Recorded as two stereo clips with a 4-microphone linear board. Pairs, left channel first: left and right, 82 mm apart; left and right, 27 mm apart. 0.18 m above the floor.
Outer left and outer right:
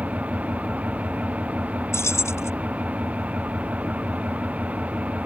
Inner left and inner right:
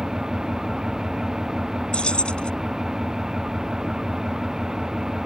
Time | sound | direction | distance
0.0 | an engine running | 20° right (ahead or behind) | ?
1.9 | keys jangling | 40° left (ahead or behind) | ?